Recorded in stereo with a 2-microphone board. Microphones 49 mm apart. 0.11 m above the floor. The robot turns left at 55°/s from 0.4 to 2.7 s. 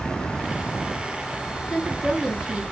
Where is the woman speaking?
5° left (ahead or behind), 1.1 m; by 2.6 s 15° right (ahead or behind), 1.1 m.